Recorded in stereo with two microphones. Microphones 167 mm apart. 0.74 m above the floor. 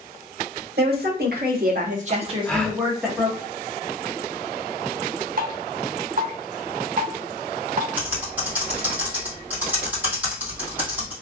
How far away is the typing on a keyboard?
About 1.7 m.